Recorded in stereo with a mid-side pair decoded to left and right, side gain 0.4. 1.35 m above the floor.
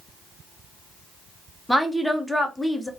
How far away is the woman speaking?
About 0.9 m.